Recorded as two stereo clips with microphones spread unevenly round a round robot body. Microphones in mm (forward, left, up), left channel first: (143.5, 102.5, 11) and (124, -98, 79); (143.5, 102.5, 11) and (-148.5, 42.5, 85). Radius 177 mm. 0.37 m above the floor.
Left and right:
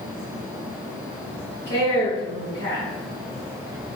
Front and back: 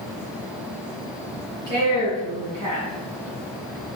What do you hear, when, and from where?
1.7 s a woman speaking: 135° right, 1.9 m